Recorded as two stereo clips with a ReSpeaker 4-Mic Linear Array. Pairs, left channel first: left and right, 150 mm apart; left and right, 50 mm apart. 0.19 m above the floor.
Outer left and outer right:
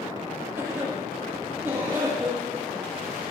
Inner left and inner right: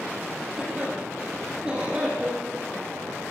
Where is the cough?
15° right (ahead or behind), 7 m.